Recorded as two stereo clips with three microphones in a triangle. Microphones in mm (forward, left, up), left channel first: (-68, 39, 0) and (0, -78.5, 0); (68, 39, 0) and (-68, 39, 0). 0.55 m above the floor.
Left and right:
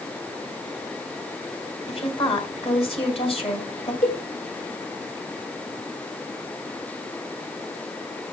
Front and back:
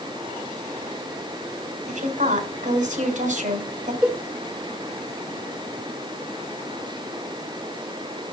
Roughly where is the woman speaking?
Behind.